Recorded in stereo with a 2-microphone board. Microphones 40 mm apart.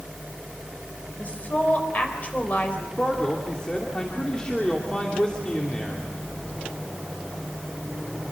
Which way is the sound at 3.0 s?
25° left (ahead or behind).